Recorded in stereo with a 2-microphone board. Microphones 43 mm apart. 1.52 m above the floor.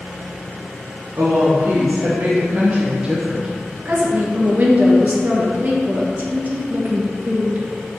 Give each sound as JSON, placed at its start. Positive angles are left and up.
{"t": 1.1, "sound": "a woman speaking", "side_deg": -85, "distance_m": 1.4}
{"t": 3.9, "sound": "a woman speaking", "side_deg": -40, "distance_m": 1.4}